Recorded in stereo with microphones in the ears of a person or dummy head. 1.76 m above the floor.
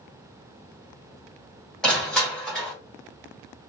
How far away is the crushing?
About 1.2 m.